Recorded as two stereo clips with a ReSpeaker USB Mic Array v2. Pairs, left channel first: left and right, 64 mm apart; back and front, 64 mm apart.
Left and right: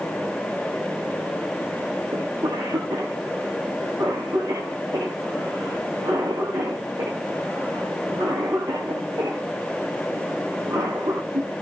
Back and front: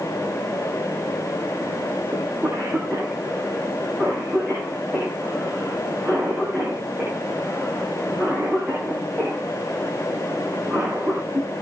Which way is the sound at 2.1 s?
80° right.